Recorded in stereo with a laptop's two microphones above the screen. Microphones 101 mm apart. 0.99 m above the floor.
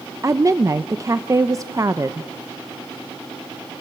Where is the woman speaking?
30° right (ahead or behind), 0.6 m.